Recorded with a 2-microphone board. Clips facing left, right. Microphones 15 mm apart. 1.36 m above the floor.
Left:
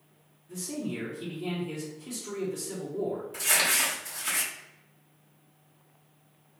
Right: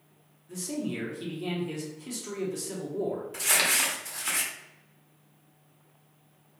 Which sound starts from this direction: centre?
Crumpling, at 3.3 s.